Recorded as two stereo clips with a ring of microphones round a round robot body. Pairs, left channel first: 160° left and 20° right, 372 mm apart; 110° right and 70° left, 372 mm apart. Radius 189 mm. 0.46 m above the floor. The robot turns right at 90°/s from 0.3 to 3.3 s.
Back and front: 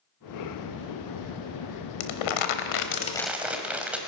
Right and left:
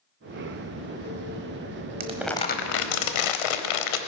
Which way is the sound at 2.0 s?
135° left.